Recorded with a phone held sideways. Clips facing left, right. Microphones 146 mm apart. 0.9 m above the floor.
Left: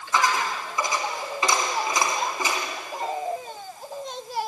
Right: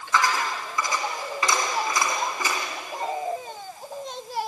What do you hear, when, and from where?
0.1 s a dropped coin: 20° left (ahead or behind), 3 m